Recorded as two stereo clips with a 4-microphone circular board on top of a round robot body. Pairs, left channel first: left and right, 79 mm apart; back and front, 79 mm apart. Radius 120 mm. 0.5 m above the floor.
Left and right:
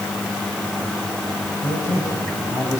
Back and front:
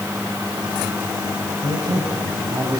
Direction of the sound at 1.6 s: 40° left.